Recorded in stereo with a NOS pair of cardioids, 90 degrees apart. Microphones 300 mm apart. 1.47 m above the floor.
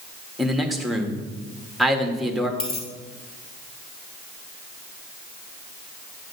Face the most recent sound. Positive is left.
turn(degrees=50)